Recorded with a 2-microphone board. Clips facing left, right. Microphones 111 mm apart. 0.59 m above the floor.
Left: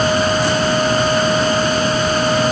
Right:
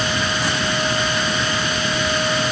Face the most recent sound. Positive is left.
No sound to turn to.